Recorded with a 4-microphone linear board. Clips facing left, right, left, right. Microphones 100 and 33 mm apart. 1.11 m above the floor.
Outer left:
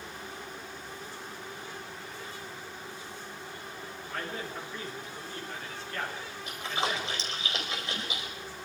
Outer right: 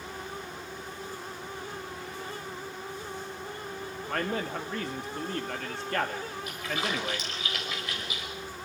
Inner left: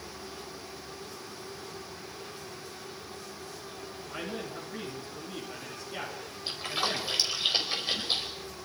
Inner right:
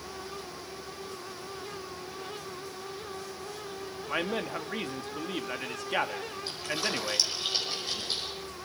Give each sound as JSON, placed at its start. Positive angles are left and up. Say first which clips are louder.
{"t": 4.1, "sound": "a man speaking", "louder": "outer right 7 dB, inner right 7 dB", "side_deg": -75, "distance_m": 2.5}
{"t": 6.5, "sound": "a splash", "louder": "outer left 2 dB, inner left 2 dB", "side_deg": 25, "distance_m": 5.0}